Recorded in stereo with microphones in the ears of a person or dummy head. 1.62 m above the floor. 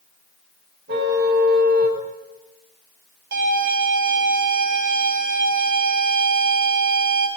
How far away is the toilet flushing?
I don't hear a toilet flushing.